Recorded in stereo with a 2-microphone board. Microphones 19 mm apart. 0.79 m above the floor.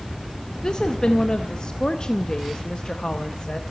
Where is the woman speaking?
45° left (ahead or behind), 0.7 m.